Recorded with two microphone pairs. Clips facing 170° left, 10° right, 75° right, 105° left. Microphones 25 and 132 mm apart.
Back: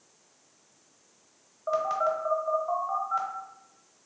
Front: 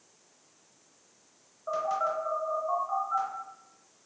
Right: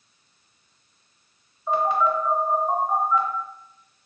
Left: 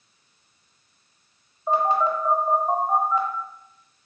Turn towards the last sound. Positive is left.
turn(degrees=125)